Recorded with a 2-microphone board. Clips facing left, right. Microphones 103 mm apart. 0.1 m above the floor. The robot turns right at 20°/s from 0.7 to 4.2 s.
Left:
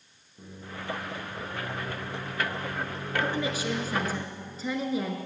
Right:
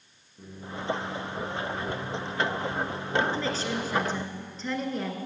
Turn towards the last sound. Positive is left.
turn(degrees=5)  # may be behind; listen again after turning